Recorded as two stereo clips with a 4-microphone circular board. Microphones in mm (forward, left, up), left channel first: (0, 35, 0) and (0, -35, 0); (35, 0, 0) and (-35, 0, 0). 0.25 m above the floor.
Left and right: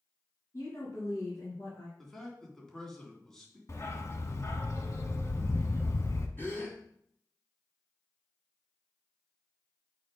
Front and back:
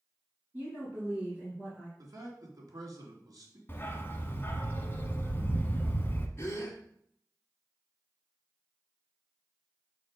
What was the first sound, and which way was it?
A woman speaking, 120° left.